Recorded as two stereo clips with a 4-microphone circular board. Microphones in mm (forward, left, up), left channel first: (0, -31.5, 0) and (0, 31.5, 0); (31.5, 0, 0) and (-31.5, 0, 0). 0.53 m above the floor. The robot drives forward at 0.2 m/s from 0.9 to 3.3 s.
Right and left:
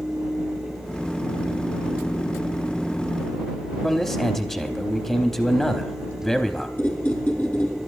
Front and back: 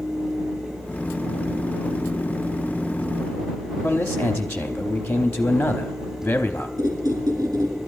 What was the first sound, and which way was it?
A man speaking, 30° right.